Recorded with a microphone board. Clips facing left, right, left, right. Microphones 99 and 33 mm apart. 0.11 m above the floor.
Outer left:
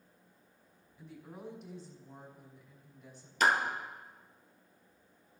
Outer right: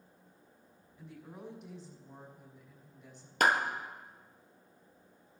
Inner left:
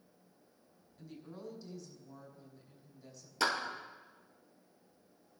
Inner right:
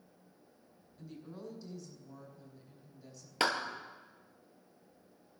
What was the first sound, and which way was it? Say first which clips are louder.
A woman speaking: even, inner right 1 dB; 5° right (ahead or behind).